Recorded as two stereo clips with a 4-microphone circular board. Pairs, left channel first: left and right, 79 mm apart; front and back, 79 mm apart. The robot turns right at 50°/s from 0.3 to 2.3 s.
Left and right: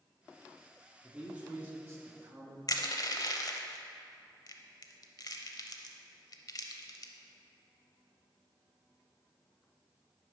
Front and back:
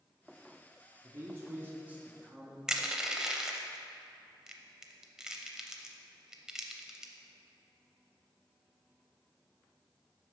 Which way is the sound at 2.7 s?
100° left.